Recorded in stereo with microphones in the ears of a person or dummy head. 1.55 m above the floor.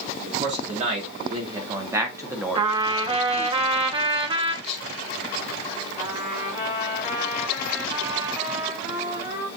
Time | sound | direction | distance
0.2 | a man speaking | 40° right (ahead or behind) | 1.8 m
2.5 | a trumpet | 30° right (ahead or behind) | 0.7 m
4.6 | whispering | 35° left (ahead or behind) | 1.7 m
6.0 | a trumpet | 25° right (ahead or behind) | 1.7 m